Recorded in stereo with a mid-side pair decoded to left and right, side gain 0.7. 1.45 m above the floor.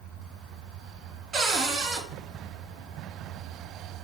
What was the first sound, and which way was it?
A cupboard door, 35° right.